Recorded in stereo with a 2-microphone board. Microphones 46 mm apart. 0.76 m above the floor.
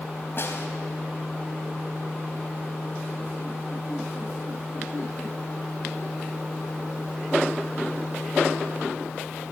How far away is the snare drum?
About 3.5 m.